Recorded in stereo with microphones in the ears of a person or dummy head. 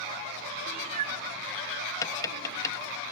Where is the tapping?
20° left (ahead or behind), 0.8 m.